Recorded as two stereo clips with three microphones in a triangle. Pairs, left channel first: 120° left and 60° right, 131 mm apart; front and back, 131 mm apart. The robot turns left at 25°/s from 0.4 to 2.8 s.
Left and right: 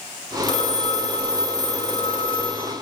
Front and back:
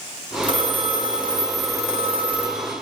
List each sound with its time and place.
0.4 s a phone ringing: 155° left, 0.7 m; by 2.8 s 95° left, 0.7 m